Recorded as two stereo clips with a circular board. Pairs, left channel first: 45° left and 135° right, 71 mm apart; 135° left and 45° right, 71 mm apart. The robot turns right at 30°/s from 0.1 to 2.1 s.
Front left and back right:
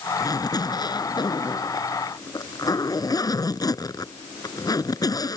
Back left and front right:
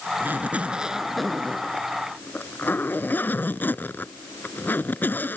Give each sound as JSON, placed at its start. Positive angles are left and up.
{"t": 0.2, "sound": "a zipper", "azimuth_deg": 15}